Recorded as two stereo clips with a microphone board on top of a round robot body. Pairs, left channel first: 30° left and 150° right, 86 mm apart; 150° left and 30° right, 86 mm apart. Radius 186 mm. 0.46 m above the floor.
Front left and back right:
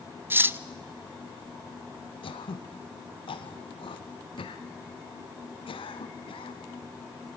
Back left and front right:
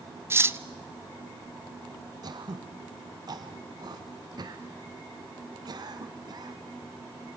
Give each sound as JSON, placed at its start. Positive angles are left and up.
{"t": 0.3, "sound": "cutlery clinking", "azimuth_deg": -90, "distance_m": 0.8}
{"t": 2.2, "sound": "throat clearing", "azimuth_deg": 10, "distance_m": 1.4}